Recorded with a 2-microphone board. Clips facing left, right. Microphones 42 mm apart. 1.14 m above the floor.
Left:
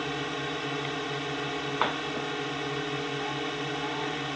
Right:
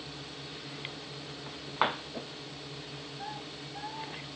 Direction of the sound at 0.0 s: 65° left (ahead or behind).